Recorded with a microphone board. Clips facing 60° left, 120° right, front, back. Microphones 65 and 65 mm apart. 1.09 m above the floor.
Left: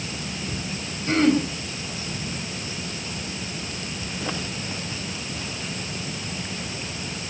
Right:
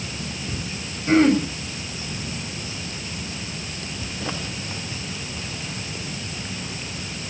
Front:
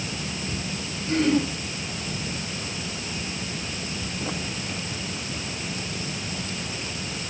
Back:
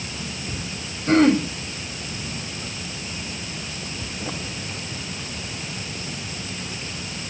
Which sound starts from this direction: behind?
Throat clearing, at 1.1 s.